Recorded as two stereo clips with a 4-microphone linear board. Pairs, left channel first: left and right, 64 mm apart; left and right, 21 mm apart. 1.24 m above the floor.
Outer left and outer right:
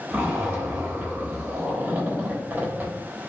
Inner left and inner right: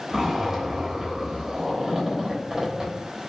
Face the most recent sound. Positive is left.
turn(degrees=-25)  # may be behind; listen again after turning